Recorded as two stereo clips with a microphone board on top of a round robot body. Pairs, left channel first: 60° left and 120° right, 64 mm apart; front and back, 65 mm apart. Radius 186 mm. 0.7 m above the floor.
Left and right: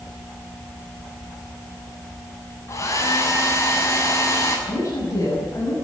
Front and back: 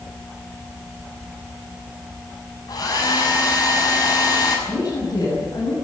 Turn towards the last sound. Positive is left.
turn(degrees=15)